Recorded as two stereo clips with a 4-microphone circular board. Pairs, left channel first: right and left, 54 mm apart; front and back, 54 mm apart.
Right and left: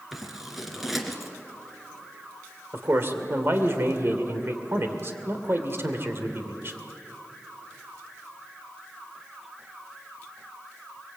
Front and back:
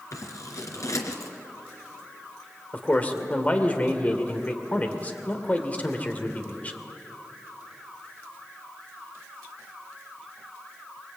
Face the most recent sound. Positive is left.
turn(degrees=55)